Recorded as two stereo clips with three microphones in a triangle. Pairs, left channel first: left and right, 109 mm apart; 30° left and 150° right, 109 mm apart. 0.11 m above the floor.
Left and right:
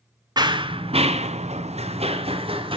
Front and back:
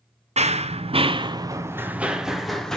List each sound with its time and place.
0.4 s running footsteps: 145° right, 0.7 m; by 2.8 s 55° right, 1.1 m